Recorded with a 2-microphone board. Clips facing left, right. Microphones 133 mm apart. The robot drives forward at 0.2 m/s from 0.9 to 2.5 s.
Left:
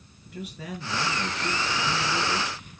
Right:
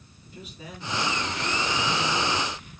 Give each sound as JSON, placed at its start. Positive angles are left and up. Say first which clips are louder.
{"t": 0.3, "sound": "a man speaking", "louder": "left 6 dB", "side_deg": 70, "distance_m": 4.0}